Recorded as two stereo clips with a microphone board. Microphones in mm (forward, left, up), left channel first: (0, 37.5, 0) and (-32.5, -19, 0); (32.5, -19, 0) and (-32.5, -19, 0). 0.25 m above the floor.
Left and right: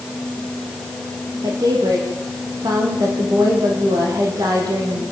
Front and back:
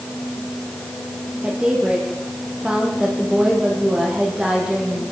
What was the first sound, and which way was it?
A woman speaking, 105° right.